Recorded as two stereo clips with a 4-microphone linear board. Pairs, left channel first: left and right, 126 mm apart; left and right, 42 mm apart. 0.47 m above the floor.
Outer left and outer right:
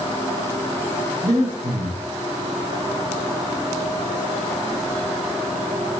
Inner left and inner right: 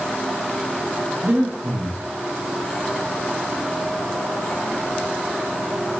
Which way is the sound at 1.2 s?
65° right (ahead or behind).